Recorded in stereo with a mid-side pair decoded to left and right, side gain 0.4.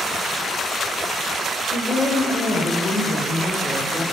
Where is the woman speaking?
55° left, 1.5 m; by 4.0 s 20° left, 2.5 m.